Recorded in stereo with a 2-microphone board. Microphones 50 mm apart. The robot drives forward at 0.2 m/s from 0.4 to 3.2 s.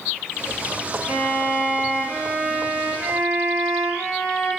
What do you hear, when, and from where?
1.1 s a violin: 45° right (ahead or behind), 1.6 m; by 4.5 s 55° right (ahead or behind), 1.3 m